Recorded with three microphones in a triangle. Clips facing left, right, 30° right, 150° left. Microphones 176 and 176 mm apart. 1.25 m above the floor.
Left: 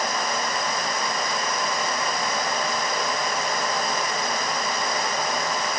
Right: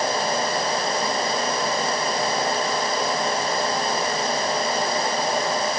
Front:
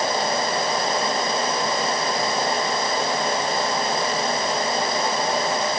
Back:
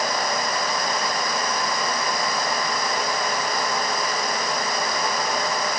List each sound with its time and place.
Only background noise.